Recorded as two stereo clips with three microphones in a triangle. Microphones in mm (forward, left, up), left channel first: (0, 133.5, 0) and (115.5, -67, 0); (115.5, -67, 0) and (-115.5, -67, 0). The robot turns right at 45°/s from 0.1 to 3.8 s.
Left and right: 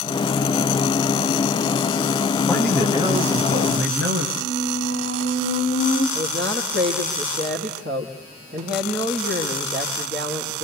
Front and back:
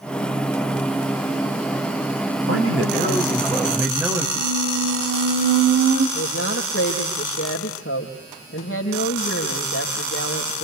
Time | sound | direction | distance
2.5 | a man speaking | 155° right | 7 m
4.4 | a squeak | 160° left | 2 m
6.2 | a woman speaking | 20° right | 4.5 m